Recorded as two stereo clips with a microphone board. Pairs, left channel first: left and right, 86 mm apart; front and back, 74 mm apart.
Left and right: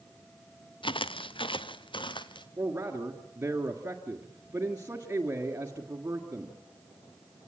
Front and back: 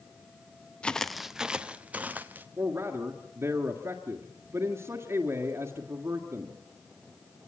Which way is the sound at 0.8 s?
75° left.